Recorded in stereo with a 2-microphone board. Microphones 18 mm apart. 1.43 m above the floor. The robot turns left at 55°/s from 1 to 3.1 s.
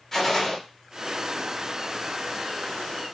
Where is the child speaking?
No child speaking in this recording.